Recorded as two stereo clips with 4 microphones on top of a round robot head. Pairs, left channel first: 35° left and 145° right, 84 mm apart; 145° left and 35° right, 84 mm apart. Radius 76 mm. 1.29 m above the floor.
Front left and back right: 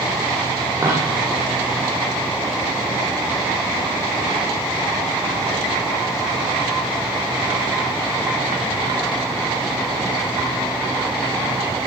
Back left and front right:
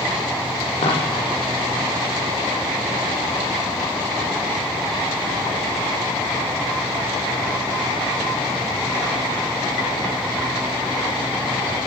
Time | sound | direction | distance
0.8 | a dropped coin | 160° left | 9 m